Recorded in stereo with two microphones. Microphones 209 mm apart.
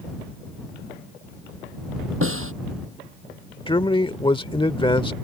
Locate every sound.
2.2 s a snare drum: 85° right
3.7 s a man speaking: 25° left (ahead or behind)